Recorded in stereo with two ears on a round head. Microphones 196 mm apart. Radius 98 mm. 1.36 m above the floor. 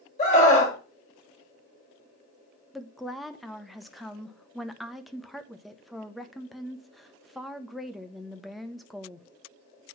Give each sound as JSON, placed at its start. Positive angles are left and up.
{"t": 0.2, "sound": "a scream", "side_deg": 35, "distance_m": 3.0}
{"t": 2.7, "sound": "a woman speaking", "side_deg": 0, "distance_m": 0.7}